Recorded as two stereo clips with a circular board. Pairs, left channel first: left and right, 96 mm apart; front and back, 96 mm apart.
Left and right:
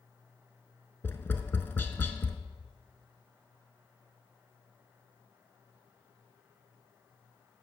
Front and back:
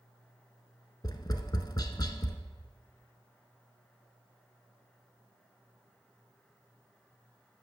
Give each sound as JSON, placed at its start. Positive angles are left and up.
{"t": 1.0, "sound": "tapping", "azimuth_deg": 25, "distance_m": 0.6}